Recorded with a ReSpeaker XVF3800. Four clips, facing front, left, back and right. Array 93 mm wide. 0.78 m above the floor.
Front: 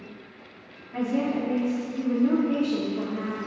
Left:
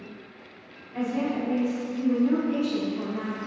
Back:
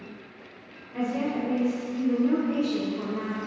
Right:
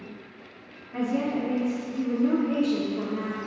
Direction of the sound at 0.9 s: 45° right.